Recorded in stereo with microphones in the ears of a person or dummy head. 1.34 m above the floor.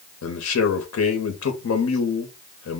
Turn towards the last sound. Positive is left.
turn(degrees=80)